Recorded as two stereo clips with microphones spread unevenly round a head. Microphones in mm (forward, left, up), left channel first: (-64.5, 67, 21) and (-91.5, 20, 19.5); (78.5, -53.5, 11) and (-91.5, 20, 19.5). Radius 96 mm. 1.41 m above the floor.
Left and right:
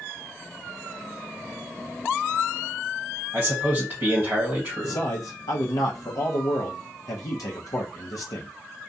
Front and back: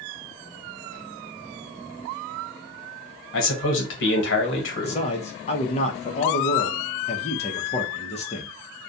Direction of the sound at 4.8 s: 35° left.